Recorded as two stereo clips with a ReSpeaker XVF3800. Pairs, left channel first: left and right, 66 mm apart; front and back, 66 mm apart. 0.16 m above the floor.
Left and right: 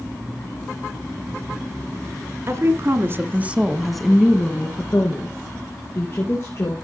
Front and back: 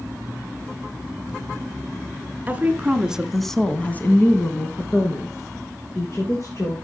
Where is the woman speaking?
120° right, 1.7 m; by 6.7 s 45° left, 3.5 m.